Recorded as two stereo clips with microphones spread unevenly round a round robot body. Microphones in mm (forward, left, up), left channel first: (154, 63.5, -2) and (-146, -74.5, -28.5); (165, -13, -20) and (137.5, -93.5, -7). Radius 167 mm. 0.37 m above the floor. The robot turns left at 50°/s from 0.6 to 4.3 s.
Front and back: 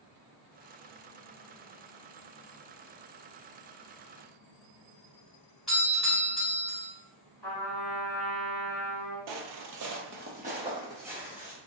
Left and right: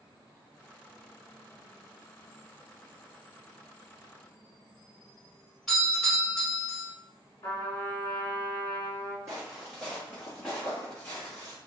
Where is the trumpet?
110° left, 1.4 m.